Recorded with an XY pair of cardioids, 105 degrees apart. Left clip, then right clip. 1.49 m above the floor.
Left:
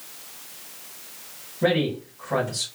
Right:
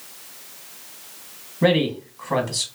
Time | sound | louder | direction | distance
1.6 | a man speaking | right 3 dB | 55° right | 1.6 m